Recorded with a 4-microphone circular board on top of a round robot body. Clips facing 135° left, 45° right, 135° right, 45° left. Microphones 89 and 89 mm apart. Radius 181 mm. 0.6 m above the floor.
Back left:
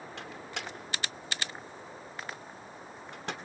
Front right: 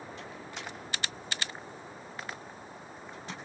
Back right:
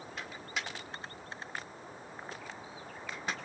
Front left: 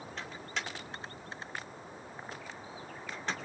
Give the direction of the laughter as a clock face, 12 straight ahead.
I don't hear laughter.